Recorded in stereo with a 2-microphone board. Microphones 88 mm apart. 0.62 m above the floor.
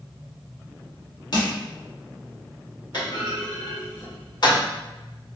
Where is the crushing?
50° left (ahead or behind), 1.1 m.